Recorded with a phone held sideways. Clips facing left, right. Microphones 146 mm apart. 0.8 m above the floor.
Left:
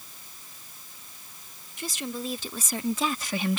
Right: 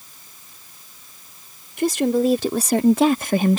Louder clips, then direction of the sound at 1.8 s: Right 16 dB; 65° right (ahead or behind).